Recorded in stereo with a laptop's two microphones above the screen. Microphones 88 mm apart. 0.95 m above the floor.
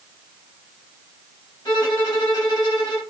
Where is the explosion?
I don't hear an explosion.